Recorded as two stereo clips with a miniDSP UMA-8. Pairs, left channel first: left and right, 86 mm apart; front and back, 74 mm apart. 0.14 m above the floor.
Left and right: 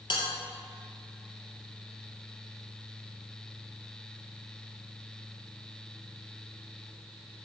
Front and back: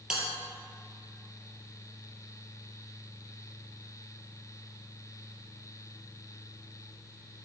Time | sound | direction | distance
0.1 | a bell | 100° left | 3 m